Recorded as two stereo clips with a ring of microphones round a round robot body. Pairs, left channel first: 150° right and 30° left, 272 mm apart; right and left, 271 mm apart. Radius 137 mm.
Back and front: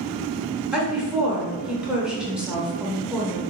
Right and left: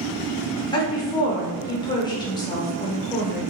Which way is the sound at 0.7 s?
50° right.